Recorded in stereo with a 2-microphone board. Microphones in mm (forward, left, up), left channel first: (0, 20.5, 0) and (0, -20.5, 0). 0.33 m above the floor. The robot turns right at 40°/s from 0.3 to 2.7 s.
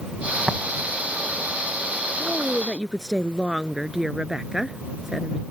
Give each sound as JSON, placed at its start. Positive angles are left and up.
{"t": 0.5, "sound": "tapping", "side_deg": -35}
{"t": 2.2, "sound": "a woman speaking", "side_deg": -30}